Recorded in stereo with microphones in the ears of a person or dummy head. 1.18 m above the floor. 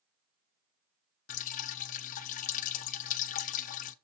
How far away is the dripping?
About 0.7 m.